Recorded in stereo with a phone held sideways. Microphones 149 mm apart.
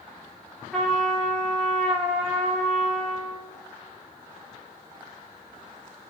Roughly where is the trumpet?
Centre.